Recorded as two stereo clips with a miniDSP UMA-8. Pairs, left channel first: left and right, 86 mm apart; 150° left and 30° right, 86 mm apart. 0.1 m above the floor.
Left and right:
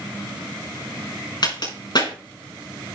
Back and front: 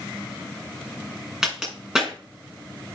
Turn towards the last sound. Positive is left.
turn(degrees=55)